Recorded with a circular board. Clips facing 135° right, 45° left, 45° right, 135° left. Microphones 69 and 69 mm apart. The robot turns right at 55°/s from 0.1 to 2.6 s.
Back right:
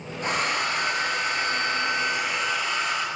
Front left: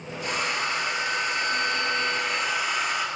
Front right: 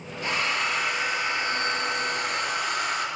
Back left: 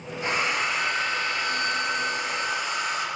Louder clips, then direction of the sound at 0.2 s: Back right 2 dB, back left 1 dB; 165° right.